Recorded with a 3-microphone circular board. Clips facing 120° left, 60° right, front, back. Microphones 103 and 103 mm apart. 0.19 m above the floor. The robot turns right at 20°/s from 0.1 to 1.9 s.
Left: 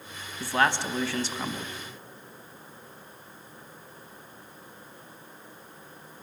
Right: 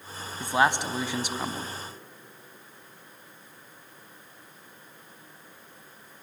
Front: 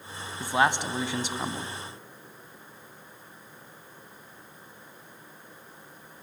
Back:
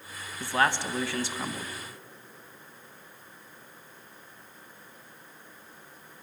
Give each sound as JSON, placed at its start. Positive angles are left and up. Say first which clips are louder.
{"t": 0.4, "sound": "a man speaking", "louder": "right 1 dB, front 2 dB", "azimuth_deg": -35, "distance_m": 1.1}